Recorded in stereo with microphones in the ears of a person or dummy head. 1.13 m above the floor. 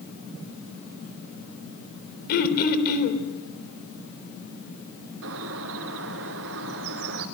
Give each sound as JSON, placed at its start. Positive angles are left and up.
{"t": 2.3, "sound": "throat clearing", "side_deg": 50, "distance_m": 3.5}
{"t": 5.2, "sound": "a bird", "side_deg": -65, "distance_m": 2.5}